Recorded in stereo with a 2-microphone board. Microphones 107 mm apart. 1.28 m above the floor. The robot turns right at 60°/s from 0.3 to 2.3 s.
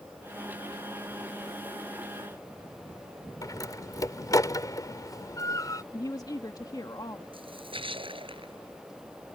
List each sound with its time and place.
3.4 s a door slam: 35° left (ahead or behind)
5.9 s a woman speaking: 35° left (ahead or behind)
7.3 s a splash: 55° right (ahead or behind)